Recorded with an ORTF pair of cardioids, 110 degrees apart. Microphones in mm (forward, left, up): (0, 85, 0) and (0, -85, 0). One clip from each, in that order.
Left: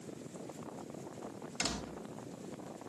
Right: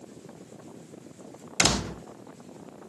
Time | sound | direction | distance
1.6 | a door slam | 65° right | ?